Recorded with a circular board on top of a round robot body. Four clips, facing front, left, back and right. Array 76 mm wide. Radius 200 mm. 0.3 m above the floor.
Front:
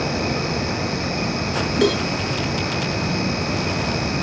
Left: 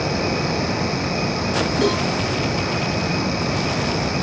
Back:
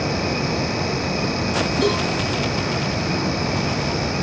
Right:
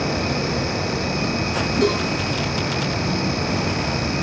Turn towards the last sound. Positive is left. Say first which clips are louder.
# right 1 dB, front 3 dB
turn(degrees=10)